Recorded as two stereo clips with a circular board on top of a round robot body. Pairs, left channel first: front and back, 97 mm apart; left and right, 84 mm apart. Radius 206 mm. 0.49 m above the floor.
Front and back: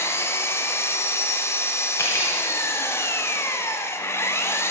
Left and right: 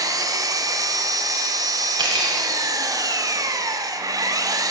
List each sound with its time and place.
0.0 s an engine running: 60° right, 1.1 m
2.0 s cutlery clinking: 65° right, 2 m